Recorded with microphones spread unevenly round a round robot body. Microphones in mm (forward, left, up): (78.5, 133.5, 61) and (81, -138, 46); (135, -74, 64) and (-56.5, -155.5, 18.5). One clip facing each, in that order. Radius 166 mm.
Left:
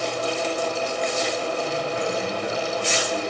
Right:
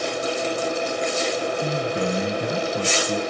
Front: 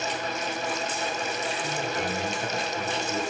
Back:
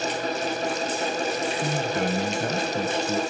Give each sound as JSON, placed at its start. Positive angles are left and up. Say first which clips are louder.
{"t": 1.6, "sound": "a man speaking", "louder": "right 2 dB, back 5 dB", "azimuth_deg": -130, "distance_m": 3.0}